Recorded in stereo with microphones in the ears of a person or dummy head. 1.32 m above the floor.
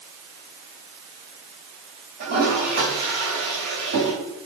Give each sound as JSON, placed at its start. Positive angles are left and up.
{"t": 2.2, "sound": "a toilet flushing", "side_deg": -55, "distance_m": 3.5}